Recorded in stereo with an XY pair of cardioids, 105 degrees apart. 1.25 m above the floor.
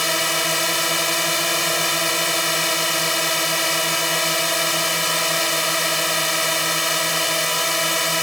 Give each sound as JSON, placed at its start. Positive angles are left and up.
{"t": 0.0, "sound": "a drone", "azimuth_deg": 0}